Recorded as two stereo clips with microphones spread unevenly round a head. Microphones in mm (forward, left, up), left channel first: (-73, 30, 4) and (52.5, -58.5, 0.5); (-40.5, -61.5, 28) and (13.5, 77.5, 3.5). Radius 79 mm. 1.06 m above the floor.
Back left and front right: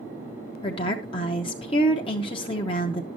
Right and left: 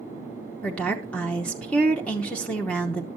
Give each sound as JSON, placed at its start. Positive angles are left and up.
{"t": 0.6, "sound": "a woman speaking", "azimuth_deg": 160, "distance_m": 0.8}